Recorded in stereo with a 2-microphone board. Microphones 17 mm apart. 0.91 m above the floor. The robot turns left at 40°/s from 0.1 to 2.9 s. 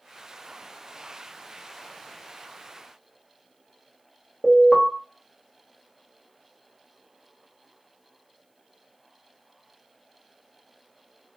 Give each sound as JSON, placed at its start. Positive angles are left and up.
{"t": 4.4, "sound": "an alarm", "side_deg": 25, "distance_m": 0.8}